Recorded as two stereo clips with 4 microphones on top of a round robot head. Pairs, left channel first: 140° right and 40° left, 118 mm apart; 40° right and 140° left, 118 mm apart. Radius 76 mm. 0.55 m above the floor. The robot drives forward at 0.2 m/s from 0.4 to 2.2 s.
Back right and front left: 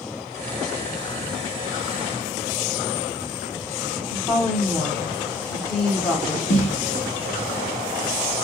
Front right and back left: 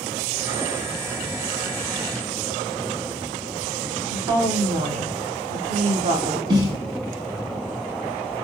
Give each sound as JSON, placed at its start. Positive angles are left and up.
{"t": 4.1, "sound": "a woman speaking", "azimuth_deg": 140, "distance_m": 1.4}
{"t": 6.5, "sound": "a snare drum", "azimuth_deg": -165, "distance_m": 0.8}